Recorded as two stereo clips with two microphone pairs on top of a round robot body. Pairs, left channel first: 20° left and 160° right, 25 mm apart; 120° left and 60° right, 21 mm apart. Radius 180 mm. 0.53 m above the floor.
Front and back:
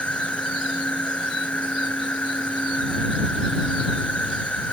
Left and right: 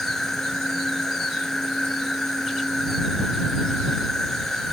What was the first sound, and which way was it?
An insect, 50° left.